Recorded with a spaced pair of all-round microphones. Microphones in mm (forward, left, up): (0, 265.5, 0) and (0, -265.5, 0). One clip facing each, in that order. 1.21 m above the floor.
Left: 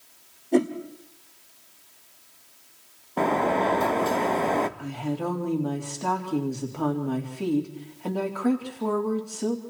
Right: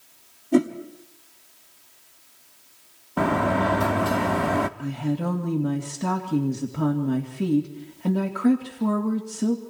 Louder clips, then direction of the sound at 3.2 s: Right 1 dB; 35° right (ahead or behind).